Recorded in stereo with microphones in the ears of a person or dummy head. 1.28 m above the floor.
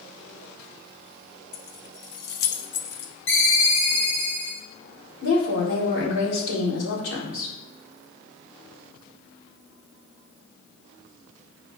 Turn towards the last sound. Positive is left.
turn(degrees=75)  # may be behind; listen again after turning